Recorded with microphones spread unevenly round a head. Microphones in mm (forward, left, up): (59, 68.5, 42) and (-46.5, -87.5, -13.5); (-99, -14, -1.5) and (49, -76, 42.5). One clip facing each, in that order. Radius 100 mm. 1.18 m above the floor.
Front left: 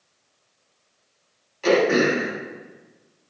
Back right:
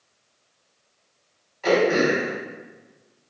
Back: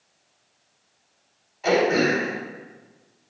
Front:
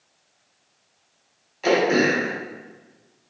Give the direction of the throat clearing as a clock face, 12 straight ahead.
12 o'clock.